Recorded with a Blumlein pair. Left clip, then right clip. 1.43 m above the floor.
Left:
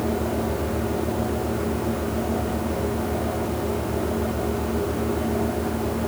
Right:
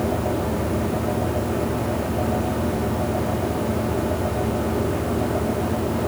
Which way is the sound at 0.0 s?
15° right.